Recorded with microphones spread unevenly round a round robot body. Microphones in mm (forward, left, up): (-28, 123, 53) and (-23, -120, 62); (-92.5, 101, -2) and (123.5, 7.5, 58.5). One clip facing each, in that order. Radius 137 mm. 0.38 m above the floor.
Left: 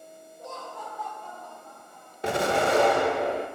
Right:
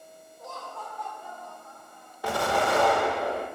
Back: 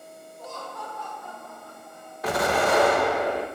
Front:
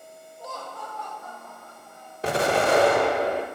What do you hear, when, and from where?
0.4 s laughter: 70° left, 1.2 m; by 2.1 s 140° right, 1.9 m
2.2 s an explosion: 40° left, 0.6 m